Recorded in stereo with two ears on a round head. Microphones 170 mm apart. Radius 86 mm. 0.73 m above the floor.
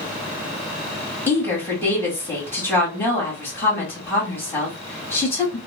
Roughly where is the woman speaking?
Centre.